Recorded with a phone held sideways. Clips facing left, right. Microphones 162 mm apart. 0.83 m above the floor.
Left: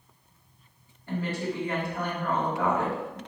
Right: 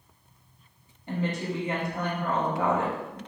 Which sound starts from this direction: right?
A woman speaking, at 1.1 s.